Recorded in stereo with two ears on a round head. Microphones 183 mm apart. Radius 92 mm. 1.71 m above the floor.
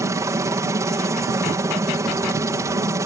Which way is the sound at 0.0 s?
15° right (ahead or behind).